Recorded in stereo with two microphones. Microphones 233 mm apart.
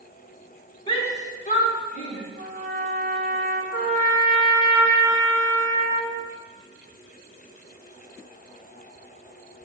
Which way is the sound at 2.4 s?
40° right (ahead or behind).